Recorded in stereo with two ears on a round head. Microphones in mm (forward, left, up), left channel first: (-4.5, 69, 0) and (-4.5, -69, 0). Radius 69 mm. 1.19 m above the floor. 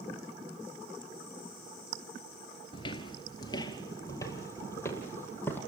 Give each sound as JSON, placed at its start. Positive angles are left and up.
{"t": 2.7, "sound": "footsteps", "side_deg": 35, "distance_m": 1.4}